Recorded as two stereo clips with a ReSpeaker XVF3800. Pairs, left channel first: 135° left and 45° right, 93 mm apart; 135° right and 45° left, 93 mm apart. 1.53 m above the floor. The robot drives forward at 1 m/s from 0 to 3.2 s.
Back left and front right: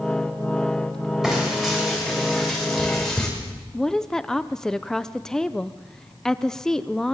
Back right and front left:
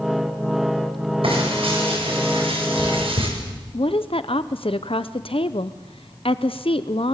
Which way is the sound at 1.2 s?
40° left.